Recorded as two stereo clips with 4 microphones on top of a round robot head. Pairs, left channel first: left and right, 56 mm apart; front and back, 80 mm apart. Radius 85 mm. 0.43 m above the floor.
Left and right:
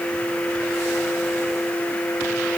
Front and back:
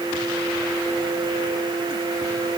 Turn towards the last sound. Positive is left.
No sound to turn to.